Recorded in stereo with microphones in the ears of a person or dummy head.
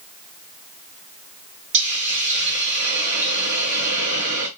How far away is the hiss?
About 0.8 m.